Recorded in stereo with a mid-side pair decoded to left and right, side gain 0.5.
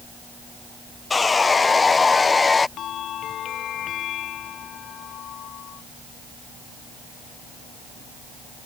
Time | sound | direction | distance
1.1 | sawing | 25° left | ?
2.8 | a bell | 60° left | ?